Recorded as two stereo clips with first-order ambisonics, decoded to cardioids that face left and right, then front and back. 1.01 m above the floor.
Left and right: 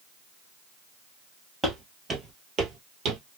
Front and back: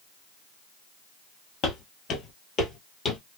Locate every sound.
1.6 s footsteps: 10° right, 1.3 m; by 3.2 s 65° right, 1.4 m